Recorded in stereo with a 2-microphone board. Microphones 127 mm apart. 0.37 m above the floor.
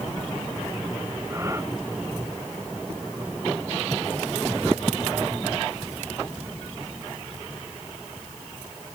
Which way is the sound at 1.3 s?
20° right (ahead or behind).